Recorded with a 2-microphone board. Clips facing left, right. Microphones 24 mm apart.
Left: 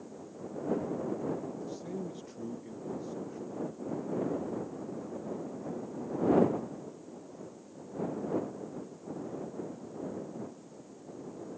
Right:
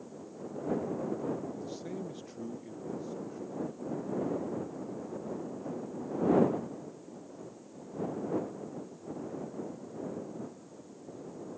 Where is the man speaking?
25° right (ahead or behind); by 4.0 s 10° left (ahead or behind).